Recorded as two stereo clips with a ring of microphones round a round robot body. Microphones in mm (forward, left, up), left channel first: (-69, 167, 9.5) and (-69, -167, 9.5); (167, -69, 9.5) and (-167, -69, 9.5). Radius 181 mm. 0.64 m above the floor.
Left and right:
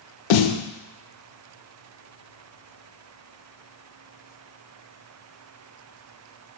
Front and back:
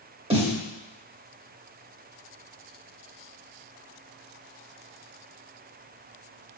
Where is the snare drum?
105° left, 0.6 m.